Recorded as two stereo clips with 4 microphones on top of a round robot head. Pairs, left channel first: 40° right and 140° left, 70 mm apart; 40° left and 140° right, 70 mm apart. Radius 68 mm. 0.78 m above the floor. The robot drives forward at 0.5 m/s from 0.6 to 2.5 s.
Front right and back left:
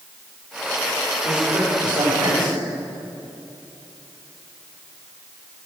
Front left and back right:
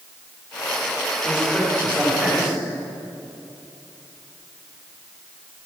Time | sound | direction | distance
1.2 | a man speaking | 150° left | 3 m